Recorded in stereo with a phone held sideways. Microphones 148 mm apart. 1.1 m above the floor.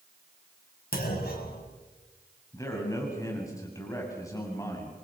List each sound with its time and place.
0.9 s a clunk: 80° left, 7.5 m
2.5 s a man speaking: 20° left (ahead or behind), 8 m